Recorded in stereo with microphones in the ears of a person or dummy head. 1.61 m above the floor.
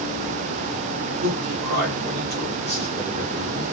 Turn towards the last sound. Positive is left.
turn(degrees=-55)  # may be behind; listen again after turning